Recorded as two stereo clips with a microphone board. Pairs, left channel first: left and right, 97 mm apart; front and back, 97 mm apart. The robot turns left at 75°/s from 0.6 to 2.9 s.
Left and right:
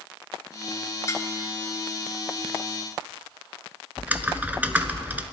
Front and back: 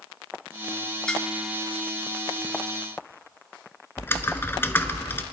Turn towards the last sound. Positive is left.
turn(degrees=-35)